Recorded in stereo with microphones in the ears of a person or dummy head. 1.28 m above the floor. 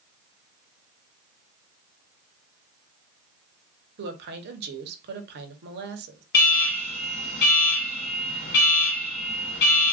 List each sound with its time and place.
4.0 s a woman speaking: 55° right (ahead or behind), 0.7 m
6.3 s an alarm: 65° left (ahead or behind), 1.9 m